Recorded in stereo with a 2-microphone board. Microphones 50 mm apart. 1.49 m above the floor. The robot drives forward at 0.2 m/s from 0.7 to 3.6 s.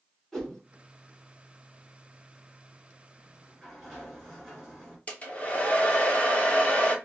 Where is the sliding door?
5° right (ahead or behind), 2.5 m.